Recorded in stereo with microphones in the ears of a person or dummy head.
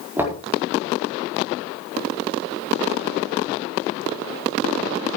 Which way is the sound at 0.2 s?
15° right (ahead or behind).